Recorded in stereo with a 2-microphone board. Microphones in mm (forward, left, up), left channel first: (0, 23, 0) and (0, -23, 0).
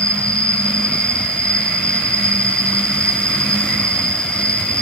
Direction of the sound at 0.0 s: 20° left (ahead or behind).